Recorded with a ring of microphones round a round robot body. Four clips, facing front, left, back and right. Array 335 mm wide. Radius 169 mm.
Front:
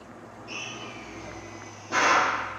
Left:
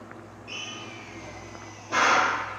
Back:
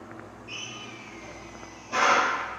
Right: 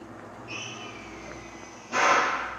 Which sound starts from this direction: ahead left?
A drill, at 0.5 s.